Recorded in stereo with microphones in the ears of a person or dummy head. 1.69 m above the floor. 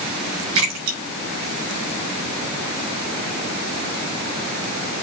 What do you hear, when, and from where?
0.6 s a splash: 75° right (ahead or behind), 6 m